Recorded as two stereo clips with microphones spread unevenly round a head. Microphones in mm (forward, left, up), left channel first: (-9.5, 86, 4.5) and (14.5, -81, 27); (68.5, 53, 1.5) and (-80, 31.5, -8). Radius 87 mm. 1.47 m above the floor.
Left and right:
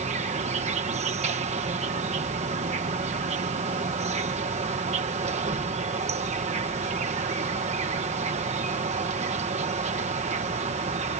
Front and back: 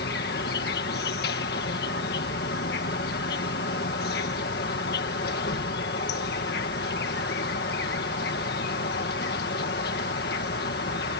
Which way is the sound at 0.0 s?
30° right.